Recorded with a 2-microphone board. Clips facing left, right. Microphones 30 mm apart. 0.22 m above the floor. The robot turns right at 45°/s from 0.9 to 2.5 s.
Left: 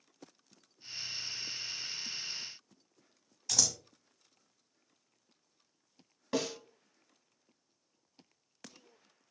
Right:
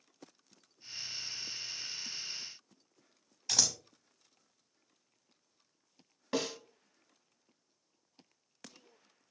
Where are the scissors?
20° right (ahead or behind), 0.7 m.